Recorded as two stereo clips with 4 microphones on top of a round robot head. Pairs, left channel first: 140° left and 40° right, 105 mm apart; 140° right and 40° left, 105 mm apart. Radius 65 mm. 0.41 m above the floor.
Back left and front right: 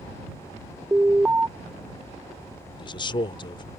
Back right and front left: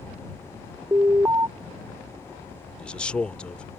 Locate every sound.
0.9 s an alarm: 15° left
2.8 s a man speaking: 145° left